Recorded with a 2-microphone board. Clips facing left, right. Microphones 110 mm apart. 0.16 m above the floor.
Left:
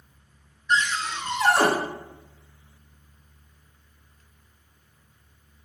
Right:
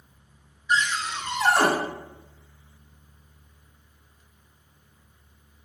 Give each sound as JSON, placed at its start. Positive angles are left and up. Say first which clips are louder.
{"t": 0.7, "sound": "a cupboard door", "louder": "left 1 dB", "side_deg": -10, "distance_m": 0.7}